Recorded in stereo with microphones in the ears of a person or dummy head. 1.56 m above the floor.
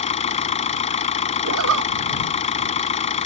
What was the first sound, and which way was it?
An engine running, 30° left (ahead or behind).